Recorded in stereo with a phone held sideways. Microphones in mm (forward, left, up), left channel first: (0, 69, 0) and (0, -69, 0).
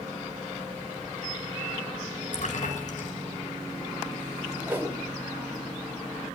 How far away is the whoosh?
About 2.5 m.